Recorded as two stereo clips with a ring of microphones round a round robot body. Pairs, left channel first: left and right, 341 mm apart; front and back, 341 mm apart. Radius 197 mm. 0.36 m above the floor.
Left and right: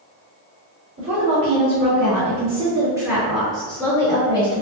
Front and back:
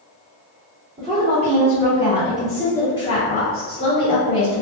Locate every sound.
1.0 s a woman speaking: 130° right, 1.9 m; by 4.6 s 20° left, 1.9 m